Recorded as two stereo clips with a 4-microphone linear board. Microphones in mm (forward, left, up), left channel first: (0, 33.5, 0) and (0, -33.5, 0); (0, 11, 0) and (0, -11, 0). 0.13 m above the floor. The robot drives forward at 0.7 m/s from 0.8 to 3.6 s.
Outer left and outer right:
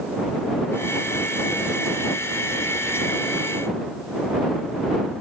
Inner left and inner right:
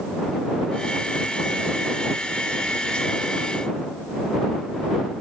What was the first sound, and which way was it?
Only background noise.